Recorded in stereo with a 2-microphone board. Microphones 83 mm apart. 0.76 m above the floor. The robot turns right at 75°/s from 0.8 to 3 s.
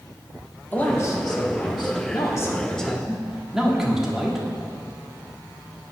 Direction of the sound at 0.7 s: 20° left.